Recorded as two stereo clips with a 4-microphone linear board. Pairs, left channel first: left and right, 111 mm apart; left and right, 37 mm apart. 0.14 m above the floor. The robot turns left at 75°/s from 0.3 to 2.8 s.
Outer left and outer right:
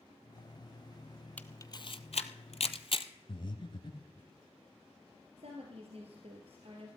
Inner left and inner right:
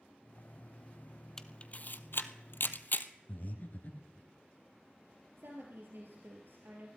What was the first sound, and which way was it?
A camera shutter, 15° left (ahead or behind).